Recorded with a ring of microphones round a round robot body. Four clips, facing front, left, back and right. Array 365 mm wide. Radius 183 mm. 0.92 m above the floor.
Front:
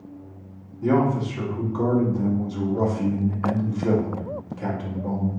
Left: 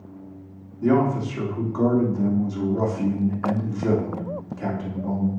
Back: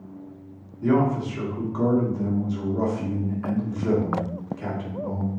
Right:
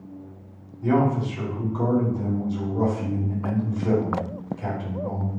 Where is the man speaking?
105° left, 3 m.